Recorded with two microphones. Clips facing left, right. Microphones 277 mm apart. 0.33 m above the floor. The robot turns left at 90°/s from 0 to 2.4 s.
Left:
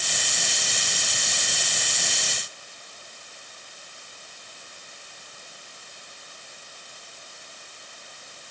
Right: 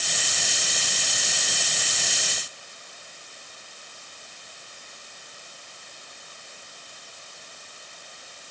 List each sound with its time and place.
Only background noise.